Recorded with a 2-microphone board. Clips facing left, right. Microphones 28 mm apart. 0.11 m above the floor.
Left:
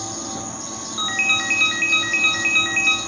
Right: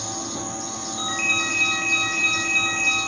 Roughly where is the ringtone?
Left.